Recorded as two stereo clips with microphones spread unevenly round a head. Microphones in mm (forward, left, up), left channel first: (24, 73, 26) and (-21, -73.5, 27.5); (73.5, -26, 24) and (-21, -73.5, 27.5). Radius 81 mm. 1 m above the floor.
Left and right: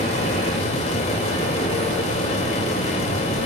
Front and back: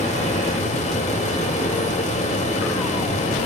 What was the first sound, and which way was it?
A fan, 25° left.